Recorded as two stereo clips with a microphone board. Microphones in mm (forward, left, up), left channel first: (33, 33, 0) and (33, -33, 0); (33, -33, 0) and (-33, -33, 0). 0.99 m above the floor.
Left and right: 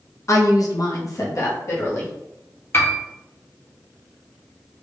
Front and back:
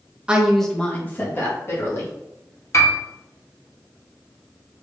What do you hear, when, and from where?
0.3 s a woman speaking: 110° left, 0.6 m; by 2.1 s 45° left, 1.7 m
2.7 s a piano: 35° left, 0.8 m